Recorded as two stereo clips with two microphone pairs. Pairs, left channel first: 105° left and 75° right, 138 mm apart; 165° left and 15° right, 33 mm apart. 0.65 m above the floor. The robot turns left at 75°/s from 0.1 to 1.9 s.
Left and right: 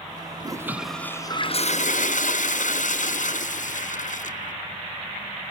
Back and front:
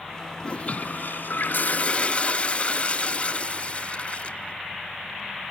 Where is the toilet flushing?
135° right, 0.7 m; by 4.5 s 115° left, 0.7 m.